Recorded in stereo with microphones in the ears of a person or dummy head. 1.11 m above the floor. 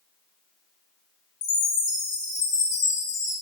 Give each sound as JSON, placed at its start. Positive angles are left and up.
{"t": 1.4, "sound": "a chime", "side_deg": 60, "distance_m": 0.7}